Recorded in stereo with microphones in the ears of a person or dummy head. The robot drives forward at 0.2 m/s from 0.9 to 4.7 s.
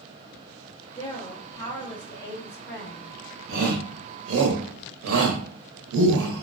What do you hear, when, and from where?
1.0 s a woman speaking: 20° left (ahead or behind), 0.9 m; by 3.1 s 15° left (ahead or behind), 1.3 m
3.5 s a shout: 65° right (ahead or behind), 0.8 m; by 6.4 s 80° right, 0.8 m